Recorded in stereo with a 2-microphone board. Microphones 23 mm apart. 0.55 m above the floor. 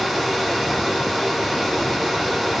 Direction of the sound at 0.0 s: 10° right (ahead or behind).